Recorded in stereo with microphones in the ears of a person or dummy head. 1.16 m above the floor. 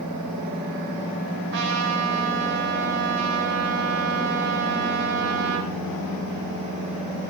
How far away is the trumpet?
About 1.7 m.